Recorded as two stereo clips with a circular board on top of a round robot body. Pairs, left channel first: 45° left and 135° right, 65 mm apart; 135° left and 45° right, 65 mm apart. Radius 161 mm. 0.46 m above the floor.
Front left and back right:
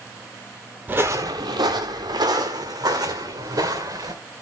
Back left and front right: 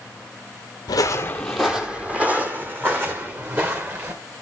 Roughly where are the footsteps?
Behind.